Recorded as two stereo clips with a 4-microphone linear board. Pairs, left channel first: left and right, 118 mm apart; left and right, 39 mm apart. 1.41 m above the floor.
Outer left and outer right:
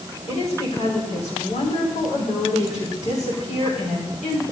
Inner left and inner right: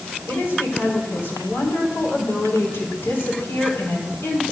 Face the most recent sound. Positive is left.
turn(degrees=85)